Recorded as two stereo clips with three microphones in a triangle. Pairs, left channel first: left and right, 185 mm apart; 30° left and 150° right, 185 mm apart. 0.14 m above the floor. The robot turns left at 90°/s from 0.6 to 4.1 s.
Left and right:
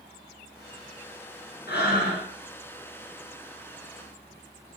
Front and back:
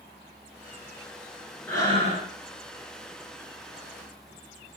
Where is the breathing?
110° left, 1.3 m; by 2.3 s 55° left, 1.3 m.